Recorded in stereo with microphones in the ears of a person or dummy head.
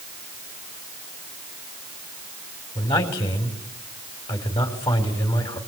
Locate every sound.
2.8 s a man speaking: 20° left (ahead or behind), 4.5 m